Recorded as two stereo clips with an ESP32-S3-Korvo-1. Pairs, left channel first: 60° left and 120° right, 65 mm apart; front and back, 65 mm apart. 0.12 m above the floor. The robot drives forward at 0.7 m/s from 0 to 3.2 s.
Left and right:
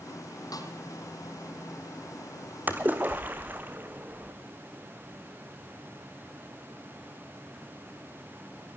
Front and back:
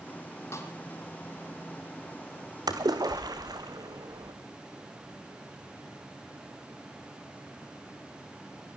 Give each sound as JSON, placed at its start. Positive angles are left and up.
{"t": 0.5, "sound": "a snare drum", "azimuth_deg": 40, "distance_m": 4.5}
{"t": 2.7, "sound": "a splash", "azimuth_deg": 180, "distance_m": 2.0}